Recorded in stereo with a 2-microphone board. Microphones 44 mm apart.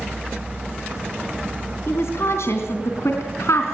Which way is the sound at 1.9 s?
70° left (ahead or behind).